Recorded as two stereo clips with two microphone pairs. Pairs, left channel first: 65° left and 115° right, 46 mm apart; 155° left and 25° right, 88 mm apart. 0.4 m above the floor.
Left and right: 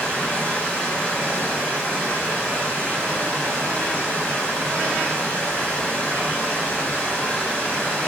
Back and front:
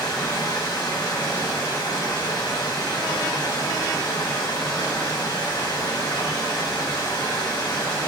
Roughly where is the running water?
Behind left.